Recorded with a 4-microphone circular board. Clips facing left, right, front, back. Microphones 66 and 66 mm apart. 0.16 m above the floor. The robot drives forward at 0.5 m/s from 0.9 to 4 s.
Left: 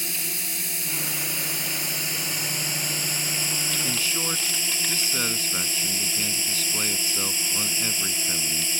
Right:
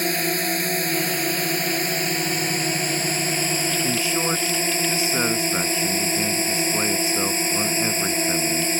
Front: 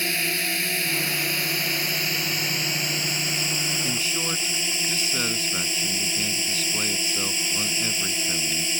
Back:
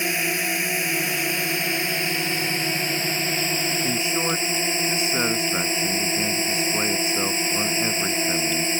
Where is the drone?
110° right; by 8.8 s 130° right.